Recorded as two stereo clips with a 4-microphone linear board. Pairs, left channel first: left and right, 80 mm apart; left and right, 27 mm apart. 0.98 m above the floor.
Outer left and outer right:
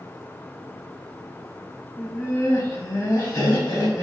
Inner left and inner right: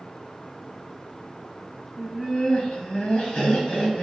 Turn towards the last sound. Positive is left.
turn(degrees=65)  # may be behind; listen again after turning